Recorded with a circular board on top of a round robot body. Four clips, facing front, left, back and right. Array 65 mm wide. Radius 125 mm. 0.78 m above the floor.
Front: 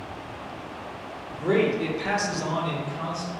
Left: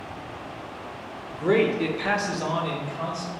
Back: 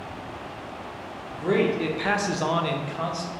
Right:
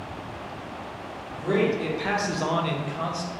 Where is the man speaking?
85° left, 0.8 m; by 3.3 s 140° right, 1.0 m.